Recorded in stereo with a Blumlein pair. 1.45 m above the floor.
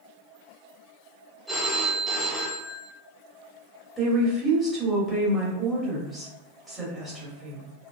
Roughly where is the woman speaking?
Ahead.